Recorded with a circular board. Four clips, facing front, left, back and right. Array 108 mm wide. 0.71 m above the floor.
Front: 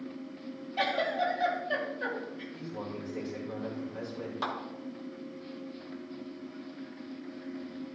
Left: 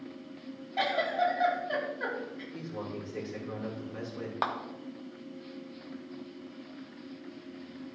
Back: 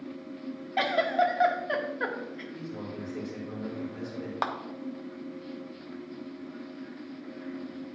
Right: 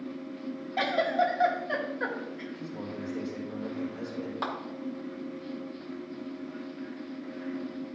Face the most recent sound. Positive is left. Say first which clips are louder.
# left 3 dB, back 4 dB
turn(degrees=145)